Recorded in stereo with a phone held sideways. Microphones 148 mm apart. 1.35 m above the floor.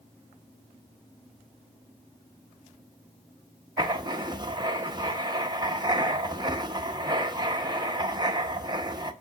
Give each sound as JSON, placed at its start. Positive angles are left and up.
{"t": 3.8, "sound": "writing", "side_deg": -30, "distance_m": 0.9}